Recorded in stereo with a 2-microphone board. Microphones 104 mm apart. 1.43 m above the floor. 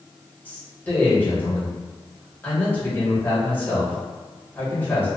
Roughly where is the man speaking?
Centre.